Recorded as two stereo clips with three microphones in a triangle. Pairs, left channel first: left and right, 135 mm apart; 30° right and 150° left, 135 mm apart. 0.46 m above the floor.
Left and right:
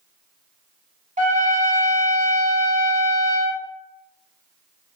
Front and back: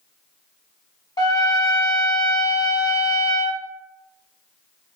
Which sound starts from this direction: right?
A trumpet, at 1.2 s.